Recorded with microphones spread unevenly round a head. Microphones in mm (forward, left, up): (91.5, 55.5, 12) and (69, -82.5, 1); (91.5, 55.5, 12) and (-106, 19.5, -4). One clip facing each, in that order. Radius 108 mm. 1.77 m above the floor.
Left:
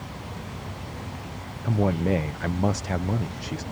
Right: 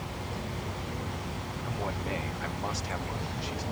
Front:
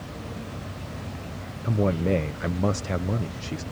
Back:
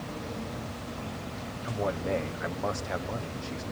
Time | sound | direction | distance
1.6 | a man speaking | 55° left | ?